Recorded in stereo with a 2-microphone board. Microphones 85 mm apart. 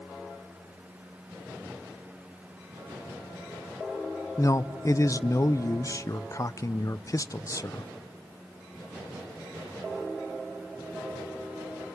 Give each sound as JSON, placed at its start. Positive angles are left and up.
{"t": 4.4, "sound": "a man speaking", "side_deg": 40, "distance_m": 0.5}